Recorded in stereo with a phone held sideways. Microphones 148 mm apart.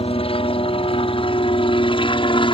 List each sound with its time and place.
0.0 s a helicopter: 35° left (ahead or behind)